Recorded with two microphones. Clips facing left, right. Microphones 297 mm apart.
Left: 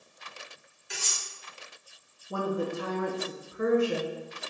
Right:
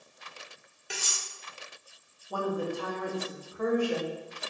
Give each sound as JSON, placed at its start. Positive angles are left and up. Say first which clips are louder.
{"t": 0.9, "sound": "cutlery clinking", "louder": "right 1 dB", "side_deg": -85, "distance_m": 1.1}
{"t": 2.3, "sound": "a woman speaking", "louder": "left 1 dB", "side_deg": 25, "distance_m": 0.6}